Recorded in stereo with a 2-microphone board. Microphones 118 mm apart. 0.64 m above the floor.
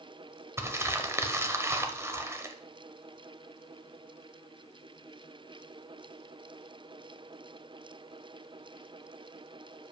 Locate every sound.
0.6 s crumpling: 20° right (ahead or behind), 0.7 m